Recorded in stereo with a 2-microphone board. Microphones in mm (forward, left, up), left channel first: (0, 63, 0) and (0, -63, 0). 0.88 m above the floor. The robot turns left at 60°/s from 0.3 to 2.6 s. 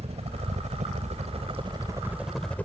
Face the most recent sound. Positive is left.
turn(degrees=10)  # may be behind; listen again after turning